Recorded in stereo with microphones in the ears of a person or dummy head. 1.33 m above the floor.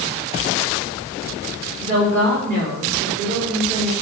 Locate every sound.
1.8 s a woman speaking: 55° right (ahead or behind), 3 m